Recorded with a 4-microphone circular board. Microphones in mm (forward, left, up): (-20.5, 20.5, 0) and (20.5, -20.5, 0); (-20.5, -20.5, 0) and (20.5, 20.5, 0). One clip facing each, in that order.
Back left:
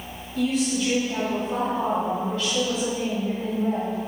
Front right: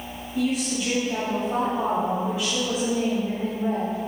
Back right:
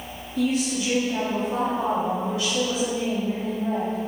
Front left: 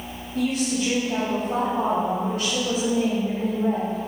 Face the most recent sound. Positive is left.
turn(degrees=30)